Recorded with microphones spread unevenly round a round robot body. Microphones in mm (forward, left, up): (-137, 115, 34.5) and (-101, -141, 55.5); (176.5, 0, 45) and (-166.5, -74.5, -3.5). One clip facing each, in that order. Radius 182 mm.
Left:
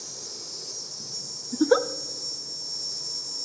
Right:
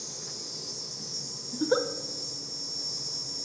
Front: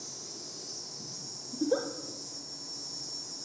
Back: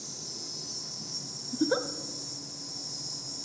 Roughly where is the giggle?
Behind left.